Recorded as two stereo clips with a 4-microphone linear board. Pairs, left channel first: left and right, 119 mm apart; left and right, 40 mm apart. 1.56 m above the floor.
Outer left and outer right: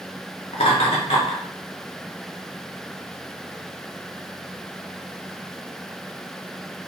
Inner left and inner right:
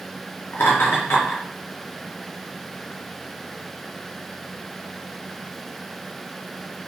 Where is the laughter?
50° left (ahead or behind), 0.7 m.